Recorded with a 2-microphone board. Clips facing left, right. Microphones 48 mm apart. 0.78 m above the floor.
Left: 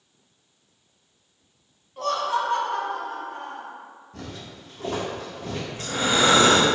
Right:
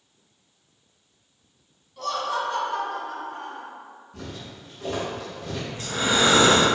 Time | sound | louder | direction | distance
2.0 | laughter | left 3 dB | 35° left (ahead or behind) | 0.5 m
4.1 | footsteps | even | 55° left (ahead or behind) | 1.3 m
5.7 | breathing | even | 40° left (ahead or behind) | 0.7 m